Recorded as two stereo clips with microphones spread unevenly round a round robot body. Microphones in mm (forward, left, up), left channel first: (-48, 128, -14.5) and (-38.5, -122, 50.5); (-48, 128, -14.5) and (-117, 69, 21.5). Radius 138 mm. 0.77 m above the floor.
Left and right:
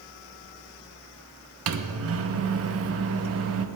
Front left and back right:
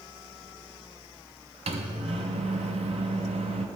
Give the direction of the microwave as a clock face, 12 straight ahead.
4 o'clock.